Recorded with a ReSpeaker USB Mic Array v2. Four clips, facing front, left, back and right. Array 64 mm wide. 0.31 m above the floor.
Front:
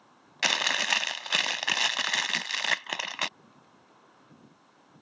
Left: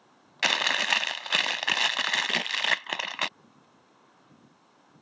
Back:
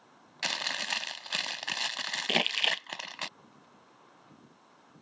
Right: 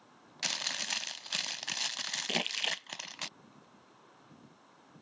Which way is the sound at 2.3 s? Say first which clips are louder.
Left 8 dB, even; straight behind.